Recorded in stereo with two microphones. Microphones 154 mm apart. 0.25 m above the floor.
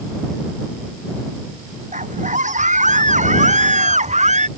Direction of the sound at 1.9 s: 55° right (ahead or behind).